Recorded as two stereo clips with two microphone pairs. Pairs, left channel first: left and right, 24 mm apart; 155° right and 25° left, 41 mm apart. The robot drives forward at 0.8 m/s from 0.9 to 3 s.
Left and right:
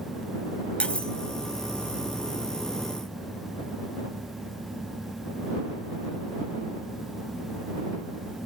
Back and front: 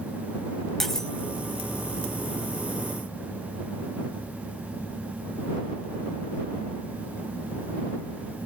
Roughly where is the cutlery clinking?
Behind left.